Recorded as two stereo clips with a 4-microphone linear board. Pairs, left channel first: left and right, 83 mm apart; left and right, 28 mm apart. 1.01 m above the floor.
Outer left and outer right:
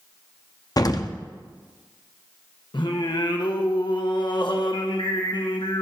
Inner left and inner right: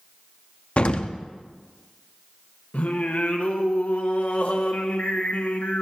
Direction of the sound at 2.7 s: 65° left (ahead or behind).